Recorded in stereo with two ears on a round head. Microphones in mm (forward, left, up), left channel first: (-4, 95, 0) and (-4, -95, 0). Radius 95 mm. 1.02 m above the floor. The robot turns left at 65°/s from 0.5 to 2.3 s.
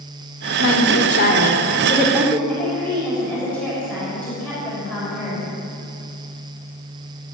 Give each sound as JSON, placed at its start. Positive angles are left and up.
{"t": 0.6, "sound": "a woman speaking", "azimuth_deg": 90, "distance_m": 2.5}
{"t": 2.5, "sound": "a woman speaking", "side_deg": 5, "distance_m": 6.0}